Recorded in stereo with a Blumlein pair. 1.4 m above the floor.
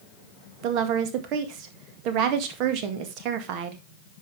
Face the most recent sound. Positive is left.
turn(degrees=-40)